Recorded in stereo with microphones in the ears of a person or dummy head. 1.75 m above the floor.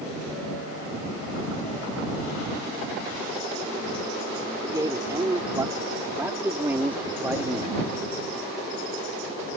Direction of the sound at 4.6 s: 20° right (ahead or behind).